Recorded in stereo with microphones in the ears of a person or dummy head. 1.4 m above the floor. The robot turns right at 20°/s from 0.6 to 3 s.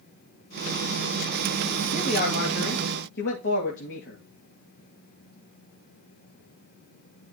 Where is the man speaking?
45° left (ahead or behind), 2.5 m; by 4.2 s 65° left (ahead or behind), 2.5 m.